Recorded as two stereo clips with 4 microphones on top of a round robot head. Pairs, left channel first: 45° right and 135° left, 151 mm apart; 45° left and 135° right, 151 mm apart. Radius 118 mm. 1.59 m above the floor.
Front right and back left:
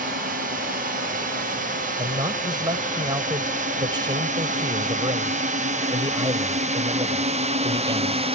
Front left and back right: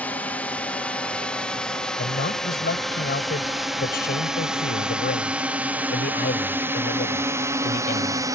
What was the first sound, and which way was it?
A drone, 125° left.